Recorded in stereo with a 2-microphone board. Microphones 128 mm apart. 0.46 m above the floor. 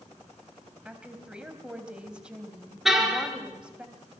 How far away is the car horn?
About 4.5 m.